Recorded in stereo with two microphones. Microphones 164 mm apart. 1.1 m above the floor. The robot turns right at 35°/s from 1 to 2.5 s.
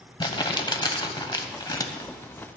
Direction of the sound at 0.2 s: 30° left (ahead or behind).